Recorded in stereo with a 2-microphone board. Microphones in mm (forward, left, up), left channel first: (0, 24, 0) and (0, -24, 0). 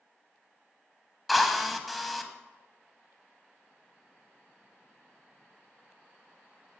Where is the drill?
5° left (ahead or behind), 0.6 m.